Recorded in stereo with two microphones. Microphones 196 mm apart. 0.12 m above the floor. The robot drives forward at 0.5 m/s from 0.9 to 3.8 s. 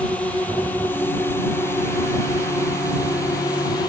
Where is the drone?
5° left (ahead or behind); by 3.9 s 20° left (ahead or behind).